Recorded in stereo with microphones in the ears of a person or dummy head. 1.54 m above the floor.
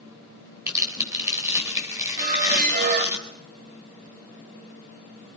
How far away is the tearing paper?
About 5 m.